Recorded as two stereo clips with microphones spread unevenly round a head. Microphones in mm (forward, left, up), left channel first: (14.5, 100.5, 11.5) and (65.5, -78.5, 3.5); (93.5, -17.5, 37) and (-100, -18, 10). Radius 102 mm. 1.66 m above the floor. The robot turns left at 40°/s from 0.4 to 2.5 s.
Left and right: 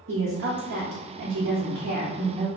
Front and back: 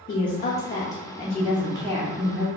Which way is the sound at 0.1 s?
50° right.